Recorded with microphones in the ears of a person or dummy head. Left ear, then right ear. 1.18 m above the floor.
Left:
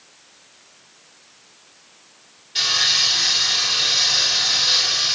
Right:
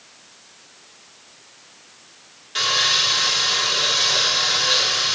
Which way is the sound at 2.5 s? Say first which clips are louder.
Left 1 dB; 45° right (ahead or behind).